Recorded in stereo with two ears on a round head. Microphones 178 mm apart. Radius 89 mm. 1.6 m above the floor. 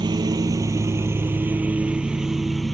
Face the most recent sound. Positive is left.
turn(degrees=0)  # may be behind; listen again after turning